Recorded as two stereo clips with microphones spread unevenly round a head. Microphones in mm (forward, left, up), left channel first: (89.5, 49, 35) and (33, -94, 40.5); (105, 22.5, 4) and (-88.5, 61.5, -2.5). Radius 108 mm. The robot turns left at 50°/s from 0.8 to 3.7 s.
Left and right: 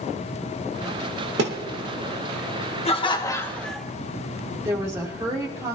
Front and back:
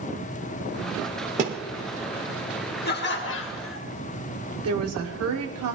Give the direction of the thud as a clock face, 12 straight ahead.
4 o'clock.